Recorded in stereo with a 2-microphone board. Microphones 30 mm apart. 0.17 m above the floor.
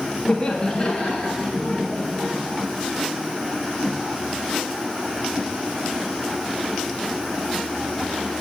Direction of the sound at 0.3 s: 25° left (ahead or behind).